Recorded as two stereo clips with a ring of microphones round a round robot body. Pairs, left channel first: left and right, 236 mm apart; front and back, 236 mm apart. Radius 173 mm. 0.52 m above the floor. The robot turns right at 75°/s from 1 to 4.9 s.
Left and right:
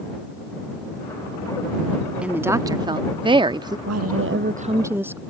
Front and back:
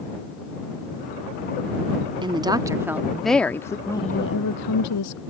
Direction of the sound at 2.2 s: 165° right.